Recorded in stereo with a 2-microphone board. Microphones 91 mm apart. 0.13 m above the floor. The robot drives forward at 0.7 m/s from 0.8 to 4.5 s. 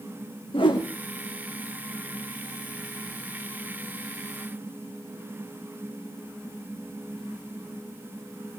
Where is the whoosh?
65° left (ahead or behind), 3 m; by 0.9 s 70° left (ahead or behind), 3 m.